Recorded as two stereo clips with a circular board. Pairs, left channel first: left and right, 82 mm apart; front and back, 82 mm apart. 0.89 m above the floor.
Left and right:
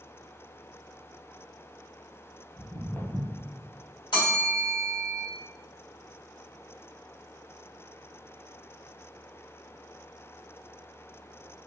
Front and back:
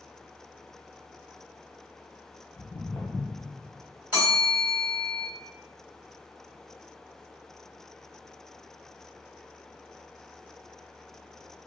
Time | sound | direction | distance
2.6 | footsteps | 20° left | 1.1 m
4.1 | a bell | 110° left | 1.4 m